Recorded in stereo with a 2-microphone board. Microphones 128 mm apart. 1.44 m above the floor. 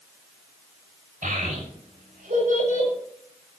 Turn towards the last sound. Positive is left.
turn(degrees=-85)